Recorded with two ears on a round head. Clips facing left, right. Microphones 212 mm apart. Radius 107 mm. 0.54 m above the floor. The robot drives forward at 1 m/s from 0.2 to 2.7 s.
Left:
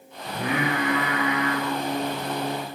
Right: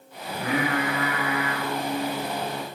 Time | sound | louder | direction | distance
0.3 | singing | even | 70° left (ahead or behind) | 9.5 m